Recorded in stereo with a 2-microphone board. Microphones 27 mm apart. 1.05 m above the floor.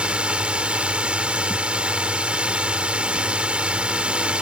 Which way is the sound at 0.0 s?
45° right (ahead or behind).